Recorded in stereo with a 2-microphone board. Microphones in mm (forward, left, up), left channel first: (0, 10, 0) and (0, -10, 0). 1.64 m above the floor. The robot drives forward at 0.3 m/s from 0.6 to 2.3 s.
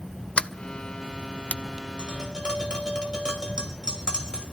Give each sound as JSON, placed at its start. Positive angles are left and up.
{"t": 0.4, "sound": "a sliding door", "side_deg": 65, "distance_m": 0.6}
{"t": 2.0, "sound": "tapping", "side_deg": -40, "distance_m": 4.5}